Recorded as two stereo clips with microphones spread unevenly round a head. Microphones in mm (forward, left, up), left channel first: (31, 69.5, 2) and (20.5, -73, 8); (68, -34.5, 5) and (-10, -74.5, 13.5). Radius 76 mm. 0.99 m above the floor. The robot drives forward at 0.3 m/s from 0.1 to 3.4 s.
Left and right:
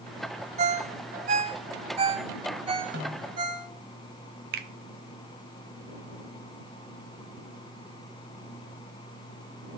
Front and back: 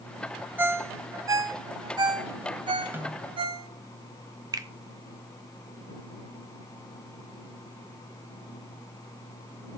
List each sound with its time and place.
0.6 s a ringtone: 100° right, 0.6 m; by 3.7 s 155° right, 1.1 m
2.9 s a snare drum: 90° right, 1.9 m; by 3.4 s 95° right, 1.9 m
4.5 s a finger snap: 110° right, 1.2 m